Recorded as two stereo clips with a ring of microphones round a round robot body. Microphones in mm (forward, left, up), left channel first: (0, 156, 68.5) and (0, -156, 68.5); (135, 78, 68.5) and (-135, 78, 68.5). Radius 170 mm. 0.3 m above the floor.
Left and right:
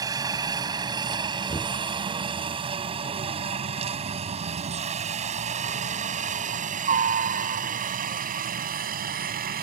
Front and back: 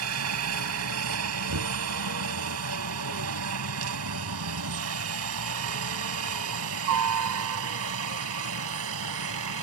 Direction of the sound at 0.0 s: 165° right.